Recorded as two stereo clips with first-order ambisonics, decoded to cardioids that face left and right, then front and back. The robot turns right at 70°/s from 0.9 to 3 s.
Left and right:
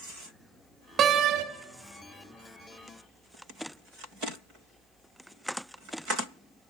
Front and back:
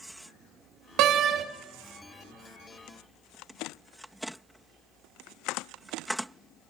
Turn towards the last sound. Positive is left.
turn(degrees=-5)